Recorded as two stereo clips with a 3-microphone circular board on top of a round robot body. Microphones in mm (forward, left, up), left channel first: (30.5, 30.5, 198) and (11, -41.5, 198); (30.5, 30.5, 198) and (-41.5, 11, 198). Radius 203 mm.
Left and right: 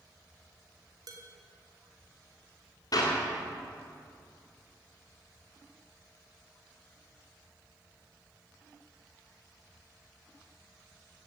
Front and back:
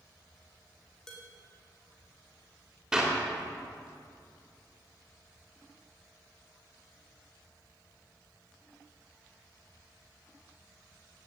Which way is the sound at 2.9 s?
110° left.